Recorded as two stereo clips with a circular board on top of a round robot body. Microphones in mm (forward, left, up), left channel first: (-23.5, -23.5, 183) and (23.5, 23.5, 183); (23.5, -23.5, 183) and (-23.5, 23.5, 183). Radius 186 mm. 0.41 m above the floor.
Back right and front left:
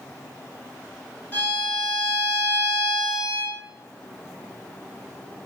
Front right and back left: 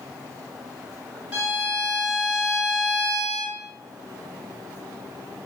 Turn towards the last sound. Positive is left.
turn(degrees=-170)